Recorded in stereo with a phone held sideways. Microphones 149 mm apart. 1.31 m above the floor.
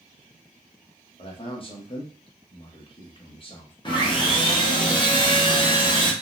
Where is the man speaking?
35° left (ahead or behind), 1.0 m.